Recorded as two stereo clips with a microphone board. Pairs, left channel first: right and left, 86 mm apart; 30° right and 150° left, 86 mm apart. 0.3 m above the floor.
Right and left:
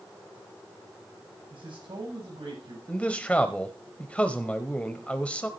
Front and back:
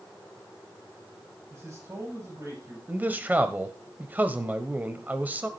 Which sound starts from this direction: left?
A man speaking, at 1.5 s.